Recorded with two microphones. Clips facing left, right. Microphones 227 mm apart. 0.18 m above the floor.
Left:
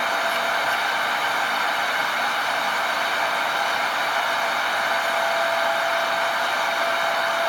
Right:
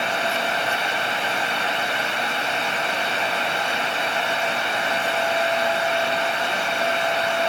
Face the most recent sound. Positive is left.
No sound to turn to.